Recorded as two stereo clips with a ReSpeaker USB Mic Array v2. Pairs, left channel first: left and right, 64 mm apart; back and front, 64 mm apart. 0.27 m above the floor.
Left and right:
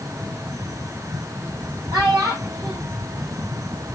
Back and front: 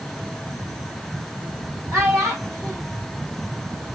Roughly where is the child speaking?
Ahead right.